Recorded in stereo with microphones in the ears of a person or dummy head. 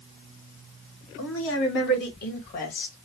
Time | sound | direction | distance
1.2 | a woman speaking | 75° left (ahead or behind) | 2.0 m